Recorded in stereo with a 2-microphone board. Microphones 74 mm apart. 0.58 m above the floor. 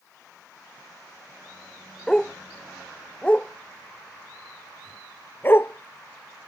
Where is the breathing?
I don't hear breathing.